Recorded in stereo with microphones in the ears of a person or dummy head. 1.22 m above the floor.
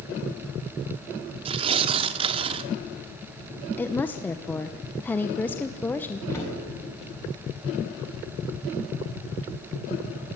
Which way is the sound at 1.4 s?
35° right (ahead or behind).